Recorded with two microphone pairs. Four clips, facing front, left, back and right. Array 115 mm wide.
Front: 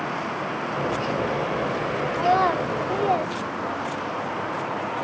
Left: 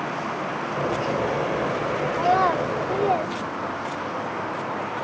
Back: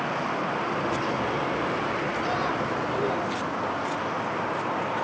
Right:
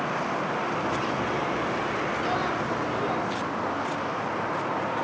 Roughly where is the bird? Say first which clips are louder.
Left 3 dB, front 2 dB; ahead left.